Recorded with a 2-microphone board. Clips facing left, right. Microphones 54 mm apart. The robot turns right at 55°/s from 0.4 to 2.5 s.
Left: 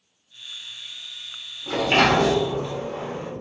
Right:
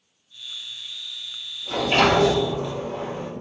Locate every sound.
1.7 s a sliding door: 115° left, 1.4 m; by 3.3 s 160° left, 1.4 m